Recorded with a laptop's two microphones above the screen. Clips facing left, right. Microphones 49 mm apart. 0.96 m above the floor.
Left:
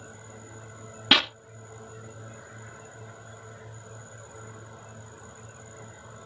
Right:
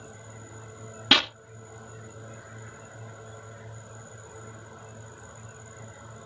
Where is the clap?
5° left (ahead or behind).